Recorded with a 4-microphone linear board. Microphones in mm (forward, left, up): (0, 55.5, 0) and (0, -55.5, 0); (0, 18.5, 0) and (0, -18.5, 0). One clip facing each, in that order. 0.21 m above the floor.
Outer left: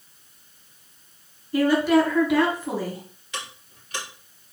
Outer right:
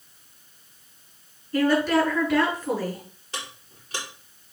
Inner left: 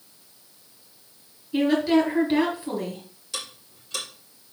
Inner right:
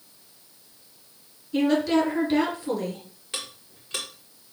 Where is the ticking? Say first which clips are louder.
Outer left 1 dB, even; 35° right (ahead or behind), 4 m.